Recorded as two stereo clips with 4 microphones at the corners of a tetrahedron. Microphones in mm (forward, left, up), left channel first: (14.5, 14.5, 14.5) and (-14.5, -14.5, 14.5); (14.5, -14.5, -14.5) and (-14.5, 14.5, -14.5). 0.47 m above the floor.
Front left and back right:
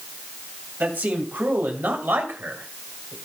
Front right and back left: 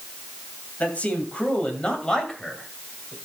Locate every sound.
0.8 s a man speaking: 95° right, 2.5 m; by 3.1 s 130° right, 1.8 m